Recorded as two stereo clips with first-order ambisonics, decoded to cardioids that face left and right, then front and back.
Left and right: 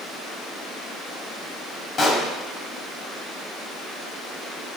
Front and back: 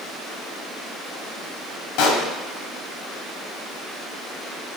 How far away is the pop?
About 2 m.